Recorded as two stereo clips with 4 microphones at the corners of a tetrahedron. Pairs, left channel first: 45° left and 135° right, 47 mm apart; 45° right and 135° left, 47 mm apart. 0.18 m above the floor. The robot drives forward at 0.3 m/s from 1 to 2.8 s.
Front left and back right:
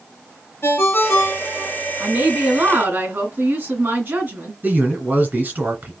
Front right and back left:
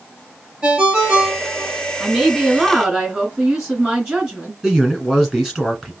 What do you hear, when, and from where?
0.6 s a ringtone: 65° left, 1.3 m; by 1.7 s 75° left, 1.3 m
2.0 s a woman speaking: 155° right, 2.0 m
4.6 s a man speaking: 145° right, 1.6 m